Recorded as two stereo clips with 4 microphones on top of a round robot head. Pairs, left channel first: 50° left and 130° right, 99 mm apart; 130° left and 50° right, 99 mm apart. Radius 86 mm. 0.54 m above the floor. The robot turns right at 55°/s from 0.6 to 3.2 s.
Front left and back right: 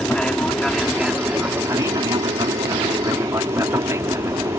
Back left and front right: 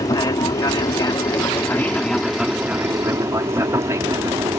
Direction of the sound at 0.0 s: 125° left.